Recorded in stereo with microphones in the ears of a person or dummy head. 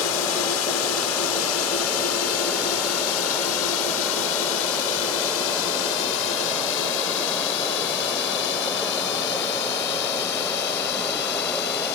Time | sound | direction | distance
0.0 | a drone | 80° left | ?